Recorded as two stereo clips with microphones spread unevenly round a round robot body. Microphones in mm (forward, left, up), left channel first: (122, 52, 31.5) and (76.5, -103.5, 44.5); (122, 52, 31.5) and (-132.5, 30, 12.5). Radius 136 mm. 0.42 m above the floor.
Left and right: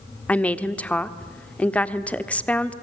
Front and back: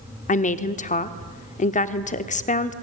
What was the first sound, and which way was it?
A woman speaking, 15° left.